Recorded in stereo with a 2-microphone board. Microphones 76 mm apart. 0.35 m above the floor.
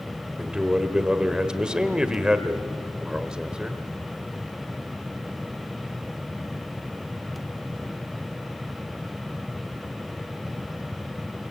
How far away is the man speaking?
About 1.2 m.